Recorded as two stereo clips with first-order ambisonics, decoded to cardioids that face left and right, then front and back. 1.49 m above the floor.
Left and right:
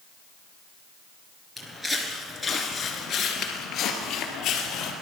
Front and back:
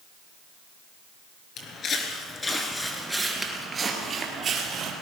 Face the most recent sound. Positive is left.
turn(degrees=130)